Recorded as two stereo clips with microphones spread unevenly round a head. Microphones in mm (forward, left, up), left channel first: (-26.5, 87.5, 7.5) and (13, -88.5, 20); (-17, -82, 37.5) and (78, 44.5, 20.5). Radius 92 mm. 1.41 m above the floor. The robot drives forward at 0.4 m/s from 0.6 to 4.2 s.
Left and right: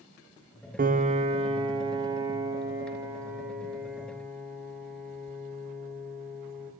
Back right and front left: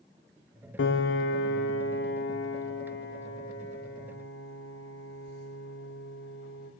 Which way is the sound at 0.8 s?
125° right.